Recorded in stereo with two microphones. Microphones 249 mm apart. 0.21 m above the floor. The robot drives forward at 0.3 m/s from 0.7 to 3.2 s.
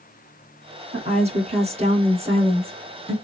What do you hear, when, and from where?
0.9 s a woman speaking: 30° right (ahead or behind), 2 m; by 3.1 s 20° right (ahead or behind), 2.5 m